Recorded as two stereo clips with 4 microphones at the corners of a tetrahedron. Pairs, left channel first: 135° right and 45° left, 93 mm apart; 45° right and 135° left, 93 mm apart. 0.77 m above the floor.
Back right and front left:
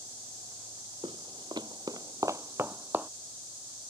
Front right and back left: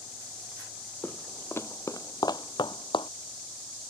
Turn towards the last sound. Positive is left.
turn(degrees=-25)